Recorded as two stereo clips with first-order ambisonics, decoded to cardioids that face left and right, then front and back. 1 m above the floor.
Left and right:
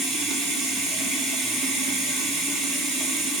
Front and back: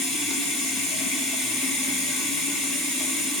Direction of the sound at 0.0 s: 35° right.